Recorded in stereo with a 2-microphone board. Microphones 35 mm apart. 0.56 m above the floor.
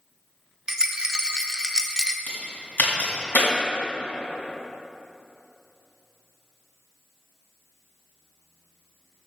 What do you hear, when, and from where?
0.7 s a rattle: 20° right (ahead or behind), 0.6 m
2.3 s a crack: 60° left (ahead or behind), 2.5 m